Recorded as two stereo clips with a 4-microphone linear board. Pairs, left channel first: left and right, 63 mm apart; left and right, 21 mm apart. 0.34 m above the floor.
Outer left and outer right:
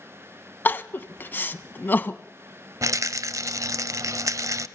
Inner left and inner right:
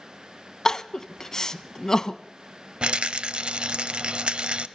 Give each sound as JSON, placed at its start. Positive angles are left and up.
{"t": 0.7, "sound": "crying", "side_deg": 30, "distance_m": 0.6}
{"t": 2.8, "sound": "a rattle", "side_deg": -55, "distance_m": 0.6}